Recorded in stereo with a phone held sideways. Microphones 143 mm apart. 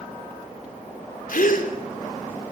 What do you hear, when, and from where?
1.3 s a gasp: 75° left (ahead or behind), 3.5 m